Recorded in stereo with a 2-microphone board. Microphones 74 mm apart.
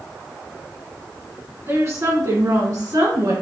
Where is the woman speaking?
40° right (ahead or behind), 1.5 m; by 3.3 s 60° right (ahead or behind), 2.5 m.